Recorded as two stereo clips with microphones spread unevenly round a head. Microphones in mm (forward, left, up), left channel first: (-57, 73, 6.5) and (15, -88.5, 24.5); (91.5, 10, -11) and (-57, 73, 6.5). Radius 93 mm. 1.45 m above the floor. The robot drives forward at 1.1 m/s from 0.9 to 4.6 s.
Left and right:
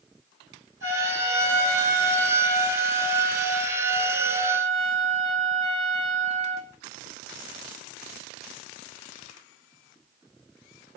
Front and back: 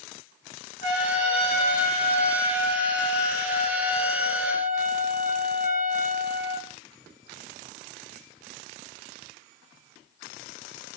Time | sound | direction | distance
0.8 | a trumpet | 75° right | 5.5 m